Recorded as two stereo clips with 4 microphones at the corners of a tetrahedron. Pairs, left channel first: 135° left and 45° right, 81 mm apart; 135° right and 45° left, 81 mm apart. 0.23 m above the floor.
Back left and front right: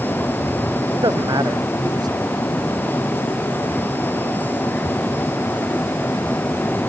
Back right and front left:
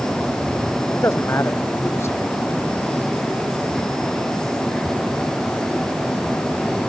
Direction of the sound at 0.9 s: 75° right.